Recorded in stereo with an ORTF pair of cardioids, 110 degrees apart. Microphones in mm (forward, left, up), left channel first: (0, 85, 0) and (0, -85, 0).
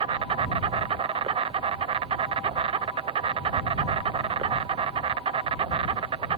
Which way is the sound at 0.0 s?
35° right.